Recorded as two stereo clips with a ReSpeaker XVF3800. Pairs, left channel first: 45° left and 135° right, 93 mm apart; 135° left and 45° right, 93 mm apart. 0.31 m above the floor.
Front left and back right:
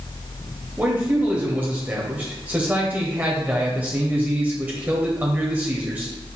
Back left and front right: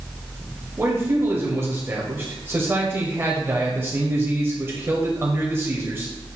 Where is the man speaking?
80° right, 1.1 m.